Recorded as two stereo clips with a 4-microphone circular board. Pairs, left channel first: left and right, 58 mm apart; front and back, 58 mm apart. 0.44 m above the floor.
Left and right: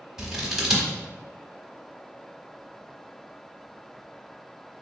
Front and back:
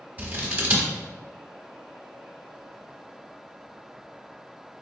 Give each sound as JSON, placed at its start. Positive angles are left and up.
{"t": 0.2, "sound": "scissors", "azimuth_deg": -165, "distance_m": 1.1}